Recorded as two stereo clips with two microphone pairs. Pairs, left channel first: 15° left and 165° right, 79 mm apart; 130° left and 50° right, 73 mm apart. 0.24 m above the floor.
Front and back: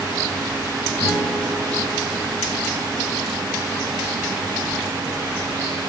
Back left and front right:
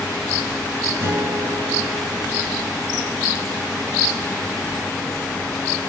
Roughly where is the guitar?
Ahead.